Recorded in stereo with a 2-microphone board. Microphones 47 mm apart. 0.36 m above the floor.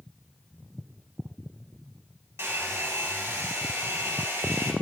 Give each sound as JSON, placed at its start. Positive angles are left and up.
{"t": 2.4, "sound": "a hair dryer", "side_deg": -85, "distance_m": 0.6}